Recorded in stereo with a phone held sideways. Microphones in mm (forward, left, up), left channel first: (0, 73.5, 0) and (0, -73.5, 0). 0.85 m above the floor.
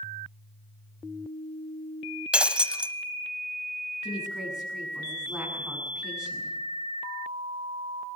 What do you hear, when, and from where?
2.3 s breaking glass: 5° right (ahead or behind), 0.9 m
4.0 s a woman speaking: centre (ahead or behind), 8 m